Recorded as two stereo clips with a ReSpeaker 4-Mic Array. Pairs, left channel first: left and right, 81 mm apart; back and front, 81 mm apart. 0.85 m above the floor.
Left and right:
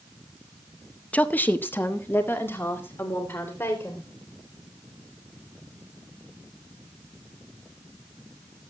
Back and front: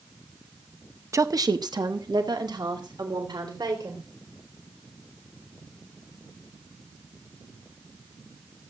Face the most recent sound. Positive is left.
turn(degrees=30)